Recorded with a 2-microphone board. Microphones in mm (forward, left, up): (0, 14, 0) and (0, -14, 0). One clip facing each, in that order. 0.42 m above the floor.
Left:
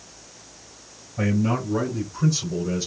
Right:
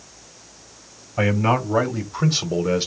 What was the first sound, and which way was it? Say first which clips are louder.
A man speaking: right 4 dB; 70° right (ahead or behind).